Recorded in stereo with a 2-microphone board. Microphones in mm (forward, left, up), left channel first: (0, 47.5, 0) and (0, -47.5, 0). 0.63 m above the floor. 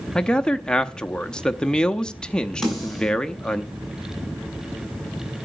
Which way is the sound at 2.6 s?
Centre (ahead or behind).